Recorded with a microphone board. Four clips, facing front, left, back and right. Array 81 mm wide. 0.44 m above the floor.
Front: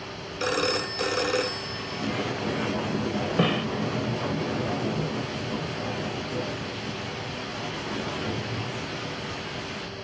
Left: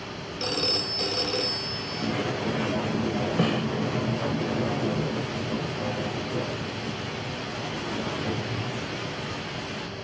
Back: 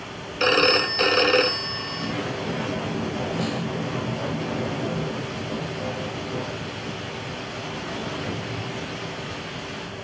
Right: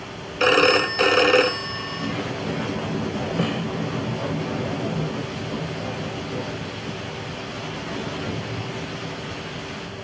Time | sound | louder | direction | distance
0.4 | a phone ringing | right 14 dB, back 6 dB | 110° right | ?
3.4 | a snare drum | even, front 3 dB | straight ahead | ?